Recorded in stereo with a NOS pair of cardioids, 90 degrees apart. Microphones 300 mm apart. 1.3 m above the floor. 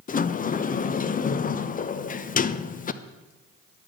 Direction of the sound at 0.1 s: 30° left.